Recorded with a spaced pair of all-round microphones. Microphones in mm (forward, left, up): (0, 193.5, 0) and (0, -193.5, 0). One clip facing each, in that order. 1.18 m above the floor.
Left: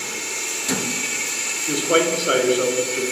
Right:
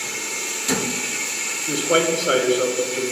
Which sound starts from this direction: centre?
A man speaking, at 1.7 s.